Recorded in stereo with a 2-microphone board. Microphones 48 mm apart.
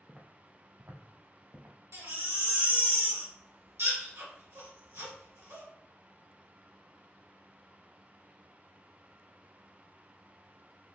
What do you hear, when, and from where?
0.1 s footsteps: 5° right (ahead or behind), 0.8 m; by 1.8 s 65° right (ahead or behind), 1.4 m
1.9 s a baby crying: 80° right, 1.7 m